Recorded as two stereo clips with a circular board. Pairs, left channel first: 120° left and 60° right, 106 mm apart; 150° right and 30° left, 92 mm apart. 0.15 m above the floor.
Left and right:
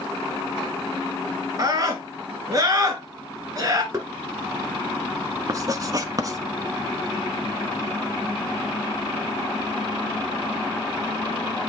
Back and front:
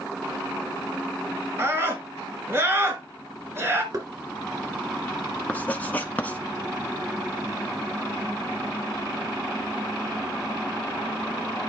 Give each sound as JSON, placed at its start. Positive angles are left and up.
{"t": 1.6, "sound": "a scream", "azimuth_deg": -20, "distance_m": 2.5}
{"t": 3.9, "sound": "knocking", "azimuth_deg": -5, "distance_m": 2.0}
{"t": 5.5, "sound": "writing", "azimuth_deg": -90, "distance_m": 0.8}